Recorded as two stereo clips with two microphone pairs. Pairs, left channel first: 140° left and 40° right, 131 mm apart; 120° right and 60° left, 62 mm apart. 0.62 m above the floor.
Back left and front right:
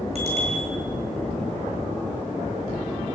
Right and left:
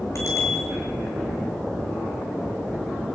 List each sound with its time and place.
0.1 s a bicycle bell: 75° right, 7.5 m